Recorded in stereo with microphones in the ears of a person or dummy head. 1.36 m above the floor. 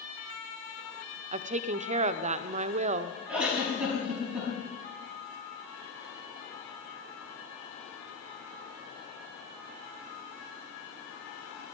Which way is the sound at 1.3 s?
35° right (ahead or behind).